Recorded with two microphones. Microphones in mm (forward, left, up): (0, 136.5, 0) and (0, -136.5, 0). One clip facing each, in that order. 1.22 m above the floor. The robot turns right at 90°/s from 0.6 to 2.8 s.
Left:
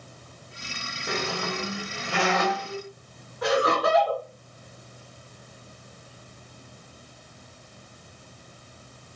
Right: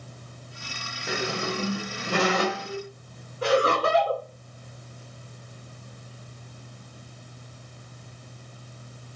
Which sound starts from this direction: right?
Laughter, at 3.4 s.